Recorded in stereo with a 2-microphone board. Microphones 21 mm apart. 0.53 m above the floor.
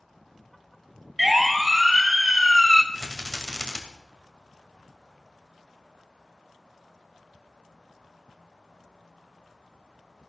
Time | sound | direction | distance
1.2 | a siren | centre (ahead or behind) | 2.5 m
2.9 | a rattle | 40° left (ahead or behind) | 2.5 m